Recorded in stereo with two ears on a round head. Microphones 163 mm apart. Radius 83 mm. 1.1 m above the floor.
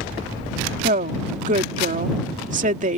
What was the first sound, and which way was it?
A woman speaking, 45° right (ahead or behind).